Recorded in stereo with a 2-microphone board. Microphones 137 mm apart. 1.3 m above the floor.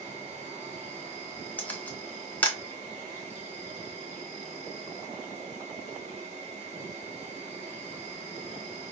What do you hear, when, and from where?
0.0 s an insect: 50° right (ahead or behind), 2.5 m
1.6 s a camera shutter: 10° left (ahead or behind), 0.8 m